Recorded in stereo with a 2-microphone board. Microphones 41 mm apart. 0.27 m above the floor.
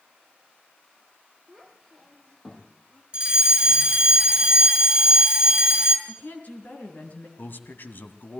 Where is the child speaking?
Centre (ahead or behind), 5 m; by 3.0 s 20° left (ahead or behind), 5.5 m.